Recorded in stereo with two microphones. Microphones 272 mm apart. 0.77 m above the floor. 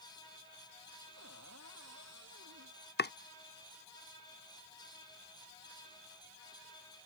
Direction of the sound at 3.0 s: 40° left (ahead or behind).